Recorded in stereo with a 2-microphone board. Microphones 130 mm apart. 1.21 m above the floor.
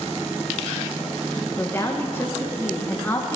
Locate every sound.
1.6 s a woman speaking: 20° left (ahead or behind), 1.3 m